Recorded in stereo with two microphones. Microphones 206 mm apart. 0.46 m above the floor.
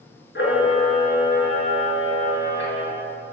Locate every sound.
0.3 s a camera shutter: 60° left (ahead or behind), 5.5 m